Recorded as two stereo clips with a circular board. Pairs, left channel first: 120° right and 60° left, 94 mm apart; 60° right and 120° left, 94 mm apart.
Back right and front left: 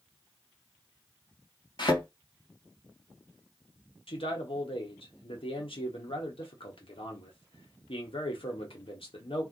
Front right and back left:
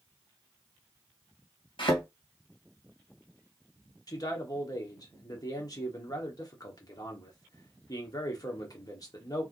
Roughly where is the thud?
Right.